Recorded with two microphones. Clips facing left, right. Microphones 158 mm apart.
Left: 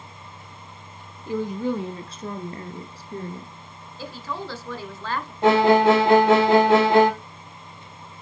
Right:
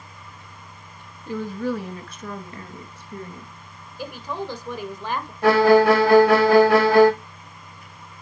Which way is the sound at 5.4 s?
20° left (ahead or behind).